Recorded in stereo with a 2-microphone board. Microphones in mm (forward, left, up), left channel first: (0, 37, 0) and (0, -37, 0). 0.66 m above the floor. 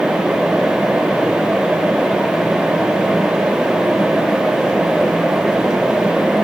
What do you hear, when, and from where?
Only background noise.